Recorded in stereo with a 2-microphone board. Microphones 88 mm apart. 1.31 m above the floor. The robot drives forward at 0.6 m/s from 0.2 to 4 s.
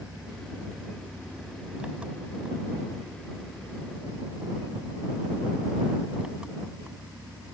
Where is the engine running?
15° right (ahead or behind); by 7.5 s 10° right (ahead or behind).